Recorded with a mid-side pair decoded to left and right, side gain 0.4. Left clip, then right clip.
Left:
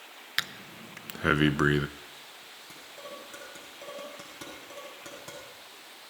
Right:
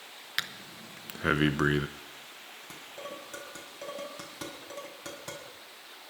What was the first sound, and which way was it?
Breathing, 20° left.